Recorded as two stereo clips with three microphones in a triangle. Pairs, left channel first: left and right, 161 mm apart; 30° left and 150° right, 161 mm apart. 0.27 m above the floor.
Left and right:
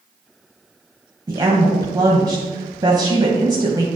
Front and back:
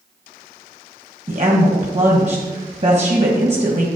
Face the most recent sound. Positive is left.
turn(degrees=-145)